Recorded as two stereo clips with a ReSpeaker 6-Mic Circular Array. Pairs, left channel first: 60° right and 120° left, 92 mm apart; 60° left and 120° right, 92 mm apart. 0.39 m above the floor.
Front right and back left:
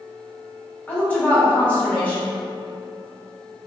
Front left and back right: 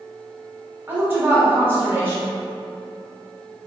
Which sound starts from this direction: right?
A woman speaking, at 0.9 s.